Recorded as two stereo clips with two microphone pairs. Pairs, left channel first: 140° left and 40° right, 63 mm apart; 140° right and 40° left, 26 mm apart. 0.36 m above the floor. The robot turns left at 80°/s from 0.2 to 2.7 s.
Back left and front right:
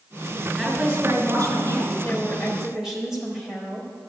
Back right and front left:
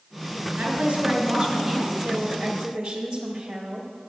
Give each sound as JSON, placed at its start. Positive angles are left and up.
{"t": 0.6, "sound": "a woman speaking", "azimuth_deg": 60, "distance_m": 3.5}
{"t": 2.0, "sound": "a woman speaking", "azimuth_deg": 90, "distance_m": 1.2}